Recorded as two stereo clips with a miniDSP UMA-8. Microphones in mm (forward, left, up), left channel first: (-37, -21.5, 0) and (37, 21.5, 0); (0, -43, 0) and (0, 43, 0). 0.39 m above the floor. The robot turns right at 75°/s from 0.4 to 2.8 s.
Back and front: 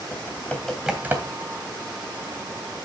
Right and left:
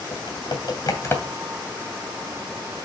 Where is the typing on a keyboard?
85° right, 2.5 m; by 1.4 s 15° right, 2.5 m.